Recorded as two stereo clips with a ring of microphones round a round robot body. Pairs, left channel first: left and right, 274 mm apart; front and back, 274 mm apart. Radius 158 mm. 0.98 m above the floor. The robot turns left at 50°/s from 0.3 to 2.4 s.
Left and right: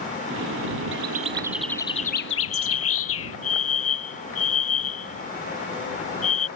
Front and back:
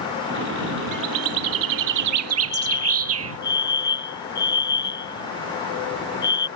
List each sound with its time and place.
0.9 s a bird: 145° right; by 3.4 s 140° left
2.5 s a fire alarm: 50° left